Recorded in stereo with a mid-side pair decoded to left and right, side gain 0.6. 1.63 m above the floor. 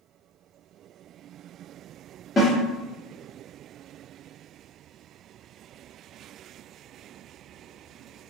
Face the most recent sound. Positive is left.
turn(degrees=25)